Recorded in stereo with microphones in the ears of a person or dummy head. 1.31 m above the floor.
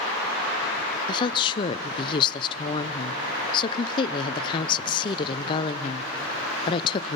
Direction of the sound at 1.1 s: 25° left (ahead or behind).